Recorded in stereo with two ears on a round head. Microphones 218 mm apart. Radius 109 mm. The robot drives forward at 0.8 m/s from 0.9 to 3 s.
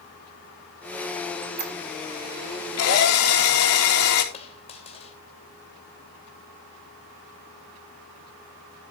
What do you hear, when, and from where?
1.4 s a squeak: 45° right (ahead or behind), 1.8 m; by 1.7 s 40° right (ahead or behind), 1.9 m
2.8 s a drill: 65° left (ahead or behind), 3 m; by 4.2 s 70° left (ahead or behind), 3 m
4.3 s a dropped coin: 25° left (ahead or behind), 2.5 m